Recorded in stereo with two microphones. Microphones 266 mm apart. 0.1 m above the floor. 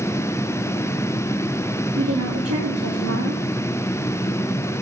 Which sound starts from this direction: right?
A woman speaking, at 1.9 s.